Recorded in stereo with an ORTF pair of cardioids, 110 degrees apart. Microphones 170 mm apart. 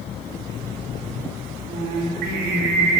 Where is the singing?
65° right, 2.5 m.